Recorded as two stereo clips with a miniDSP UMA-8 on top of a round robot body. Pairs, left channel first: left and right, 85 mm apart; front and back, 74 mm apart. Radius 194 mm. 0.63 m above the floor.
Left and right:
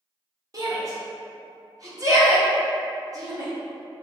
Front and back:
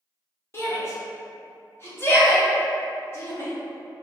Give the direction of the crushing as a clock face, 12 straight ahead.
I don't hear crushing.